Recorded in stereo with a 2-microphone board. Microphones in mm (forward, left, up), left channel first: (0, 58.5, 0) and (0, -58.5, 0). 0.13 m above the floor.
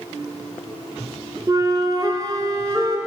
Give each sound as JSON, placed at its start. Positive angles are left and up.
{"t": 1.5, "sound": "a flute", "side_deg": -35, "distance_m": 1.2}